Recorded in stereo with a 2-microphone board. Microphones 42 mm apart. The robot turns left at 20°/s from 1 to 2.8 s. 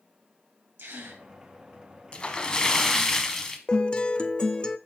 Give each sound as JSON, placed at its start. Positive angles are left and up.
{"t": 0.8, "sound": "a gasp", "side_deg": -65, "distance_m": 1.9}
{"t": 2.1, "sound": "a splash", "side_deg": 30, "distance_m": 1.0}
{"t": 3.7, "sound": "a guitar", "side_deg": 25, "distance_m": 0.5}